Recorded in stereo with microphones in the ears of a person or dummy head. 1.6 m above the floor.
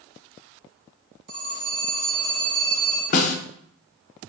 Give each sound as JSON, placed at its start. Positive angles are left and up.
{"t": 1.3, "sound": "a phone ringing", "side_deg": -40, "distance_m": 2.0}
{"t": 3.1, "sound": "a snare drum", "side_deg": 45, "distance_m": 0.5}